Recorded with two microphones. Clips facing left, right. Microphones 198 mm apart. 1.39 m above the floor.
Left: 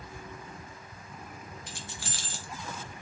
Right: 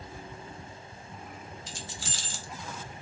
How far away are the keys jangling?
About 0.8 m.